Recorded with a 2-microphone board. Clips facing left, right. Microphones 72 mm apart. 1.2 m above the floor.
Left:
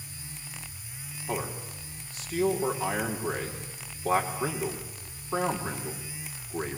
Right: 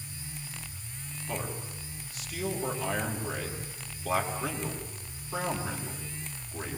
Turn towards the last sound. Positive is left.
turn(degrees=30)  # may be behind; listen again after turning